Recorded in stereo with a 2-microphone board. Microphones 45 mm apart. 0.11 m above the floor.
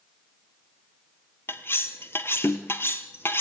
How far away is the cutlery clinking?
About 1.4 m.